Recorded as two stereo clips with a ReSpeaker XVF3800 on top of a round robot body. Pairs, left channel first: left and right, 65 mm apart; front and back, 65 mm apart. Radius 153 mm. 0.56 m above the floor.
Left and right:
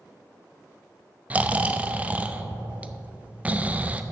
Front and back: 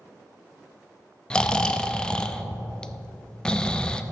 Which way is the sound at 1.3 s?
60° right.